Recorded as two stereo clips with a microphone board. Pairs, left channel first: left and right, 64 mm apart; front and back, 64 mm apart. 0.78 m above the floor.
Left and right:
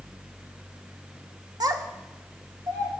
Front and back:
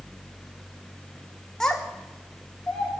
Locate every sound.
1.6 s a child speaking: 80° right, 1.2 m